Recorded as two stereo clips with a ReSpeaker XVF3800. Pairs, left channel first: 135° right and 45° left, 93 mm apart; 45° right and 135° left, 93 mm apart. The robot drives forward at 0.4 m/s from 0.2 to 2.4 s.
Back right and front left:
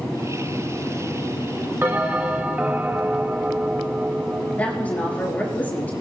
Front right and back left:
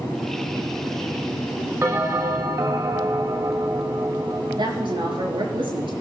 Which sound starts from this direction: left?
A bell, at 1.8 s.